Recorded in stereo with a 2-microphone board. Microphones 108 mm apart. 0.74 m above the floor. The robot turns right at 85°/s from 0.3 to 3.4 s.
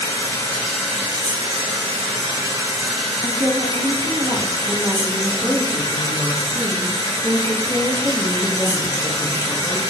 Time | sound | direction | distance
0.0 | running water | 145° left | 1.7 m
3.2 | a woman speaking | 25° right (ahead or behind) | 0.7 m